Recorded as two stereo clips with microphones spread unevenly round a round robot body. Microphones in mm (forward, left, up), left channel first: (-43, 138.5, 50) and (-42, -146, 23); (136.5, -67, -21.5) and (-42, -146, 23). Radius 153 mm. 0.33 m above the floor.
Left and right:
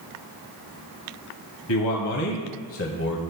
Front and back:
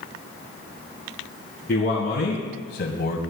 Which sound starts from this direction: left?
A man speaking, at 1.7 s.